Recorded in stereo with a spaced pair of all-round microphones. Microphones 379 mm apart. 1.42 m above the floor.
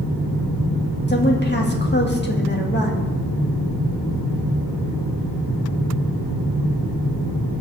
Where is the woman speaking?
25° left (ahead or behind), 1.9 m.